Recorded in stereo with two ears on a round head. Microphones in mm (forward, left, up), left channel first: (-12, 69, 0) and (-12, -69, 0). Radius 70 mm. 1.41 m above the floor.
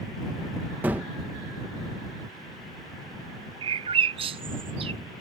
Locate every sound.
0.8 s a gunshot: 10° right (ahead or behind)
3.6 s a bird: 35° right (ahead or behind)